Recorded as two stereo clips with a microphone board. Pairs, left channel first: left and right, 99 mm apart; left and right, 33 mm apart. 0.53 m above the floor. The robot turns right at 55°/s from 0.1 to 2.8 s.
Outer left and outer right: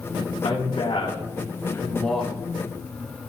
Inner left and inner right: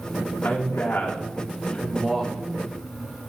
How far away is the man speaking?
About 3.5 m.